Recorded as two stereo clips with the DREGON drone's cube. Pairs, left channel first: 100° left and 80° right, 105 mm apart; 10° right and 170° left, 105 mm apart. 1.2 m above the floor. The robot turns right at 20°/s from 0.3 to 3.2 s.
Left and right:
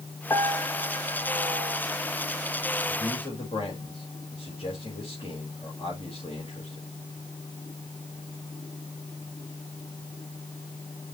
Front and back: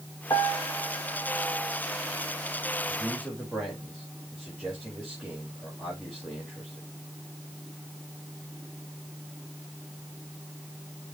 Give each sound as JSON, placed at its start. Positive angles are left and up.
{"t": 0.3, "sound": "a piano", "azimuth_deg": 40, "distance_m": 1.8}
{"t": 2.9, "sound": "a man speaking", "azimuth_deg": 70, "distance_m": 5.0}